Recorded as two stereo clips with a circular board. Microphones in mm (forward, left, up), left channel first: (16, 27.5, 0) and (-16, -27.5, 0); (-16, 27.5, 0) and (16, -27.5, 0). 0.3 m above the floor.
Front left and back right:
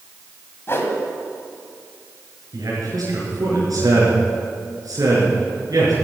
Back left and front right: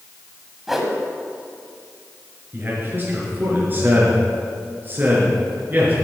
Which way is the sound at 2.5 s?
115° right.